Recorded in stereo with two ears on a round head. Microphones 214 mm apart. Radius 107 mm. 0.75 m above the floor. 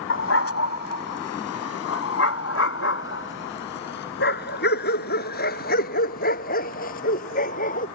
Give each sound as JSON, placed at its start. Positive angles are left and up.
{"t": 0.1, "sound": "a dog barking", "side_deg": 55}